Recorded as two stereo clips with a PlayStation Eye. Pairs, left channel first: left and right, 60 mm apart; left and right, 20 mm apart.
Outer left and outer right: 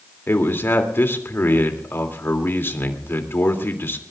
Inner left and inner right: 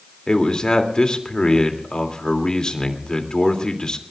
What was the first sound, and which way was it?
A man speaking, 40° left (ahead or behind).